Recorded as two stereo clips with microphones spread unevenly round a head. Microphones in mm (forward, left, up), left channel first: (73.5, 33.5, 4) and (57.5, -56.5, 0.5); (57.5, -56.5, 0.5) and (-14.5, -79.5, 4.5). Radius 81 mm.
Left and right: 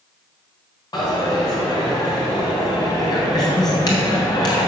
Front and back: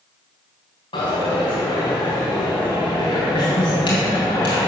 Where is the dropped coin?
40° left, 3 m.